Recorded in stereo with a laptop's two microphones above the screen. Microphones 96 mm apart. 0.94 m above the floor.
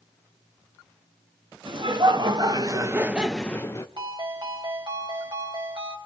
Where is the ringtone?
55° right (ahead or behind), 4 m.